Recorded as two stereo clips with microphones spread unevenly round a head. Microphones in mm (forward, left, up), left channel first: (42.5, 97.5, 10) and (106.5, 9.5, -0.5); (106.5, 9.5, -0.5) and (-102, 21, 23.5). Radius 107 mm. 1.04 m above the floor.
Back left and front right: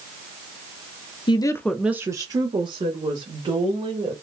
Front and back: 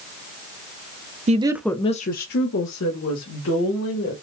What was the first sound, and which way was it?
A woman speaking, 130° left.